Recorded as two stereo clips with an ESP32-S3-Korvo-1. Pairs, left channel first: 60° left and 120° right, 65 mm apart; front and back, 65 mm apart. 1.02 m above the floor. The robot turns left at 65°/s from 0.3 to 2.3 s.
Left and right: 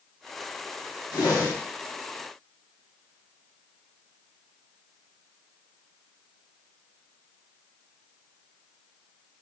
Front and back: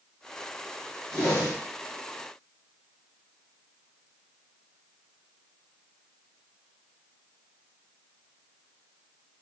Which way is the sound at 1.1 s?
85° left.